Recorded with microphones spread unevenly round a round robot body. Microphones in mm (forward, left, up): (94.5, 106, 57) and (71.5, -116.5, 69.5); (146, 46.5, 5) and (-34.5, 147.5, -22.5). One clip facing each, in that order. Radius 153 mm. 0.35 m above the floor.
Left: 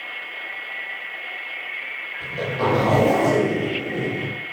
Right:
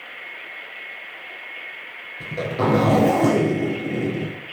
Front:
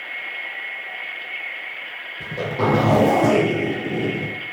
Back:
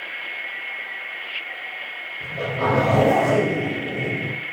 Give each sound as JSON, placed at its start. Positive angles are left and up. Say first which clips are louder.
{"t": 2.2, "sound": "a zipper", "louder": "right 1 dB, front 2 dB", "azimuth_deg": -75, "distance_m": 6.5}